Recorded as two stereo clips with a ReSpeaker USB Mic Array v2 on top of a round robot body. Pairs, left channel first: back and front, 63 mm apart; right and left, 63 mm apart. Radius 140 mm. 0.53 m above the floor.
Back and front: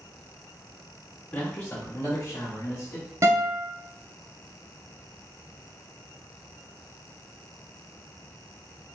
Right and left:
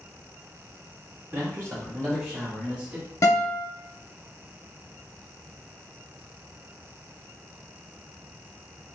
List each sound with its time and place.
1.3 s a man speaking: 120° left, 1.9 m; by 3.1 s 155° left, 2.5 m
3.2 s a guitar: 45° right, 0.5 m